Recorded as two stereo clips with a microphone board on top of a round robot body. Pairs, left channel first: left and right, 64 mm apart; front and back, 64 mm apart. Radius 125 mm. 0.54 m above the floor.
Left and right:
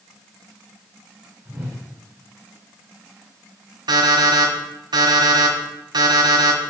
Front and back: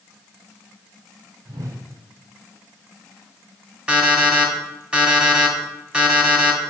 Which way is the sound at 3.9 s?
105° right.